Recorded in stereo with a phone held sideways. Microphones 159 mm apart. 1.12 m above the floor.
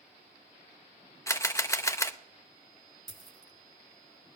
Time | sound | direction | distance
1.3 | a camera shutter | 20° left (ahead or behind) | 0.7 m
3.1 | a dropped coin | 30° right (ahead or behind) | 1.2 m